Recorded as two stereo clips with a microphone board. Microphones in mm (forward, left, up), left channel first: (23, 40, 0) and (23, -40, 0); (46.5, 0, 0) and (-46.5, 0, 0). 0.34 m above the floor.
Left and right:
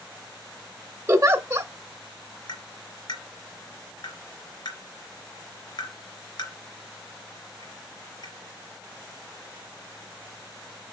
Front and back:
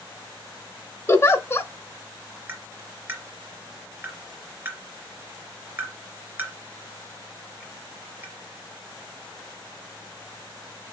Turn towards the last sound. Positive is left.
turn(degrees=115)